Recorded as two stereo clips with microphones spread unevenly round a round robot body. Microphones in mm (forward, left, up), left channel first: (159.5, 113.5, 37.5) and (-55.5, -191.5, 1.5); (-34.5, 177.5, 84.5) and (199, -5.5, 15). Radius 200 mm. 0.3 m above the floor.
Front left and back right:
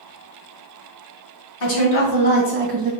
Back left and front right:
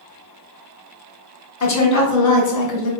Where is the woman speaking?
105° left, 1.7 m; by 2.9 s 140° left, 1.4 m.